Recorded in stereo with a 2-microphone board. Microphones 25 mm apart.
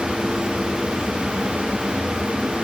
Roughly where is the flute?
No flute in this recording.